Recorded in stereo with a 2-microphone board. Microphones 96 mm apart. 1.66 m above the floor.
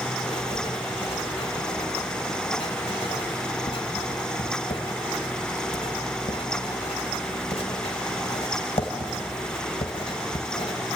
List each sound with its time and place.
0.2 s writing: 85° left, 2.5 m